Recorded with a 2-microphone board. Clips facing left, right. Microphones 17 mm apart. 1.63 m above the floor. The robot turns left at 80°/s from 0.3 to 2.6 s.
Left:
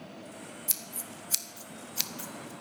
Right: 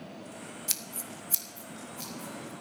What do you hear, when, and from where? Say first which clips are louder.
0.7 s scissors: right 3 dB; 20° right (ahead or behind), 1.0 m; by 2.5 s 50° left (ahead or behind), 1.0 m